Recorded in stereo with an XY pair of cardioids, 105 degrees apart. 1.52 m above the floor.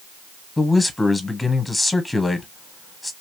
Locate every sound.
0.6 s a man speaking: 15° left, 0.9 m